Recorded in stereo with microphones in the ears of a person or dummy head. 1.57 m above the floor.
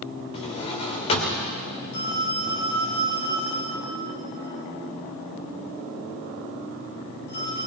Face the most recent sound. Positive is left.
turn(degrees=55)  # may be behind; listen again after turning